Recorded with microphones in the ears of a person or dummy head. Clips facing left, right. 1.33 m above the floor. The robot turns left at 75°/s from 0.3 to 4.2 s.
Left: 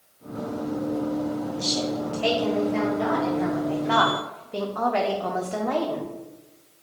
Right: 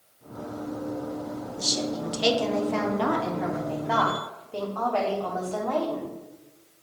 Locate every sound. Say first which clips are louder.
1.6 s a woman speaking: left 3 dB; 5° right, 0.6 m; by 6.1 s 155° left, 0.6 m